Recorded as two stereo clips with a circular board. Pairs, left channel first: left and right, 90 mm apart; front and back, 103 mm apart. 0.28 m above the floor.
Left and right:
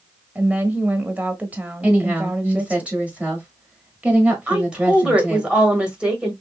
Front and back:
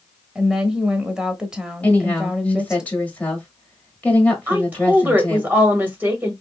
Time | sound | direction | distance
0.3 | a woman speaking | 110° right | 0.9 m
1.8 | a woman speaking | 45° right | 1.4 m
4.5 | a woman speaking | 150° right | 1.4 m